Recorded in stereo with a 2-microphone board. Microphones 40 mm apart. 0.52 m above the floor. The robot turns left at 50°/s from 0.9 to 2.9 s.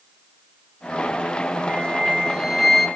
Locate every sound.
1.7 s a flute: 135° right, 1.4 m; by 2.9 s 165° left, 1.4 m